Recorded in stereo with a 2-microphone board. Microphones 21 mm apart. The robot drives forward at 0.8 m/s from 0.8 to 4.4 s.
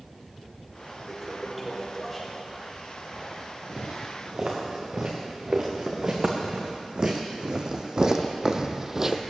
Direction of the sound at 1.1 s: 5° right (ahead or behind).